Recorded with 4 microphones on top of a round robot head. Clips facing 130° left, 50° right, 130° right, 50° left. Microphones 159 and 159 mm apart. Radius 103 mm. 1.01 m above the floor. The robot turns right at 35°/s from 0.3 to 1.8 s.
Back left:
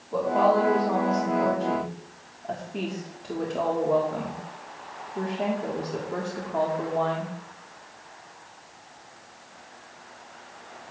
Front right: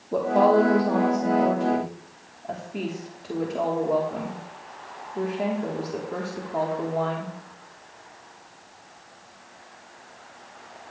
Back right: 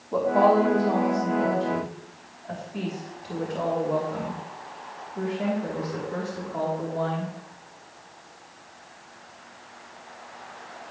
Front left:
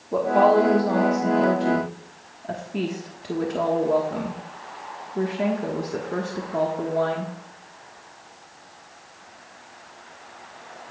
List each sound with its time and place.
0.1 s a woman speaking: 20° right, 1.3 m; by 7.3 s 35° left, 1.3 m